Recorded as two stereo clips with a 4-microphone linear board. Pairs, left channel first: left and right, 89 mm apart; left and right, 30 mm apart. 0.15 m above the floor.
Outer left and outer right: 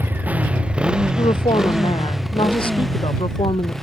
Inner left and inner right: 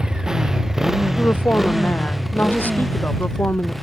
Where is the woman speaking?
75° left (ahead or behind).